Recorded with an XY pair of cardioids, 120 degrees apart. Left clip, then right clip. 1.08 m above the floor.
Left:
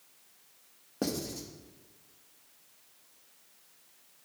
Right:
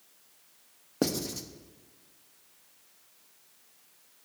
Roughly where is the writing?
Ahead right.